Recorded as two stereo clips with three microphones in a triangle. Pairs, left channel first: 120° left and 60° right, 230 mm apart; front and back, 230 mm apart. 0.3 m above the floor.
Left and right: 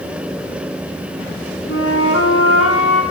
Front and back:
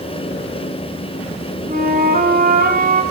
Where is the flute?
130° left, 1.2 m.